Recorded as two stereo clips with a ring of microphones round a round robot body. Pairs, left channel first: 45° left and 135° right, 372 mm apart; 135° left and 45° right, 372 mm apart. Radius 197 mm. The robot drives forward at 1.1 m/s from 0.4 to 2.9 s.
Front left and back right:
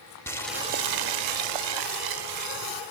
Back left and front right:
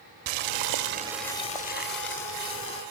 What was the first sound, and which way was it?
Boiling, 40° right.